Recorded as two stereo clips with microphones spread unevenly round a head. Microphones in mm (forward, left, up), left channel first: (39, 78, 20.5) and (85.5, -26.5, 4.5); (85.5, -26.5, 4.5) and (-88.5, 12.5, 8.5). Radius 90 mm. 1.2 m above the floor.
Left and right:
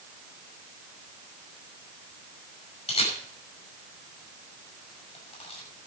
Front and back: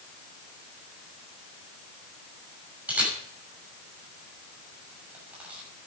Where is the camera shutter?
85° left, 6 m.